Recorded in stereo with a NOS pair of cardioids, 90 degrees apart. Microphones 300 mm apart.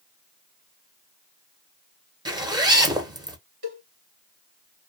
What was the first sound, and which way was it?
A zipper, 15° right.